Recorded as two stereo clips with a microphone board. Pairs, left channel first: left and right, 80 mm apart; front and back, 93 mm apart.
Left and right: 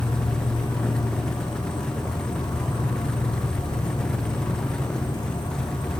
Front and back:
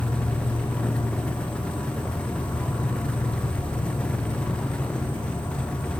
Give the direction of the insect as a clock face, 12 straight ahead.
10 o'clock.